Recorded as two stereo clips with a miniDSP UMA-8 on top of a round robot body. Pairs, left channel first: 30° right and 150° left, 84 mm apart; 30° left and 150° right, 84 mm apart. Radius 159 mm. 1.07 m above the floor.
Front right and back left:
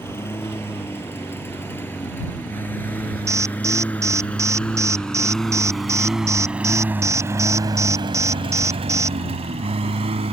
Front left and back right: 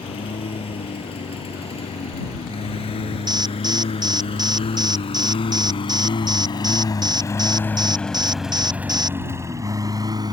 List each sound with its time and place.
0.0 s a lawn mower: 35° left; by 10.3 s 165° left
3.3 s an alarm: 165° right